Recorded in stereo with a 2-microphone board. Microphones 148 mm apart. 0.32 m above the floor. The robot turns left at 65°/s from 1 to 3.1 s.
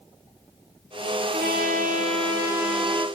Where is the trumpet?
80° right, 7.5 m; by 3.0 s 160° left, 7.5 m.